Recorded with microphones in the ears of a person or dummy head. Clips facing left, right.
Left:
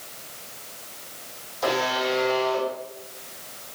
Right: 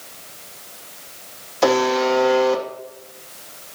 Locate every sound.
1.6 s a buzzer: 75° right (ahead or behind), 2.5 m